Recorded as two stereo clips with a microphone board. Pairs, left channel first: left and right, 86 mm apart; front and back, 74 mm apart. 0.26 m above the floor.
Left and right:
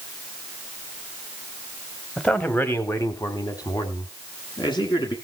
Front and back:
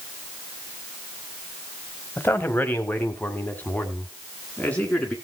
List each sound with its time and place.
2.2 s a man speaking: 20° left, 1.3 m; by 5.2 s 75° left, 3 m